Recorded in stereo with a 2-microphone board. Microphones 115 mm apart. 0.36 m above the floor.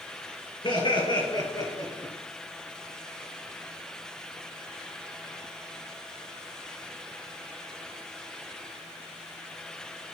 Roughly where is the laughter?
Left.